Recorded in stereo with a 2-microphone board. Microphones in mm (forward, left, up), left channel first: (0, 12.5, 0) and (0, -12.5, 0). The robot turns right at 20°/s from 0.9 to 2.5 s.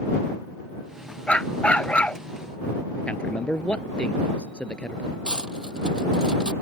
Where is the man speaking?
50° left (ahead or behind).